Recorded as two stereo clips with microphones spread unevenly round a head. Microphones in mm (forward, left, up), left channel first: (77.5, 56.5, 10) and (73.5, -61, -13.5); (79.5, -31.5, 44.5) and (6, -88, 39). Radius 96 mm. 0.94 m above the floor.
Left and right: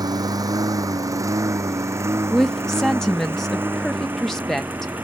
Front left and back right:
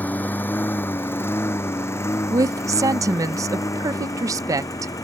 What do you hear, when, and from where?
0.0 s a lawn mower: 35° right; by 5.0 s 15° right
2.3 s a woman speaking: 175° right